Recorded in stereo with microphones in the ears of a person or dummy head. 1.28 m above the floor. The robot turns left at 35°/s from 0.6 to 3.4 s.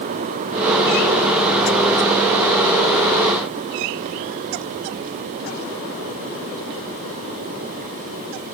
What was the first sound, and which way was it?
Only background noise.